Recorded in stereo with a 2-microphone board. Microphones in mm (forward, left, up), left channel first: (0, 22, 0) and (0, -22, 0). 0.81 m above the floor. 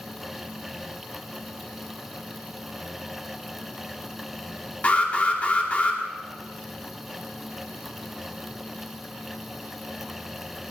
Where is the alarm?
35° left (ahead or behind), 2 m.